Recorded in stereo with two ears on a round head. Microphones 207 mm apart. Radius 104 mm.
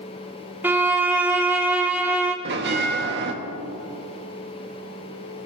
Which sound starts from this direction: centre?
A violin, at 0.6 s.